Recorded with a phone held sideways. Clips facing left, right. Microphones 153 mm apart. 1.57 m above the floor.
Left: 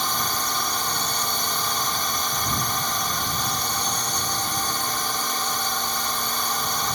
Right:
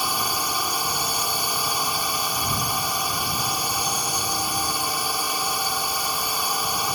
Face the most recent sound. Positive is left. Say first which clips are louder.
# right 1 dB
turn(degrees=-10)  # may be behind; listen again after turning